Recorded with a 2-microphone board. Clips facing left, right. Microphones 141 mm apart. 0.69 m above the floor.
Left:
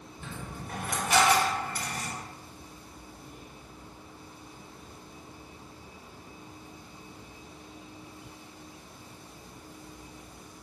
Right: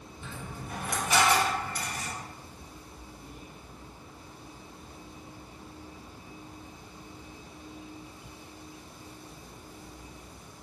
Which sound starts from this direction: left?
A dropped coin, at 0.2 s.